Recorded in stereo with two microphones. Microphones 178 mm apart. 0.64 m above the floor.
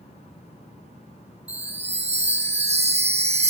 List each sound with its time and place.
1.5 s a chime: 35° right (ahead or behind), 0.7 m